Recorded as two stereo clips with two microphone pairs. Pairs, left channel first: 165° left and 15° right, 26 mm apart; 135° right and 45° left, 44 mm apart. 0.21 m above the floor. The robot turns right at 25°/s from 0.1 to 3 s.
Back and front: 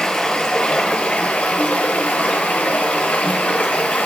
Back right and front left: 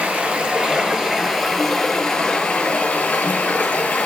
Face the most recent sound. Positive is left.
turn(degrees=175)